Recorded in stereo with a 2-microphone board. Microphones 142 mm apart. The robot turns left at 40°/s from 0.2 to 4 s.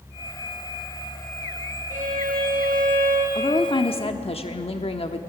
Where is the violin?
65° right, 5 m; by 3.2 s 120° right, 5 m.